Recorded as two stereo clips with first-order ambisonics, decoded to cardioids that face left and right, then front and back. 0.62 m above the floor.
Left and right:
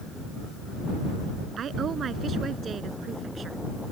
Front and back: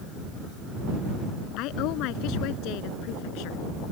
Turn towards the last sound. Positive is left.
turn(degrees=-20)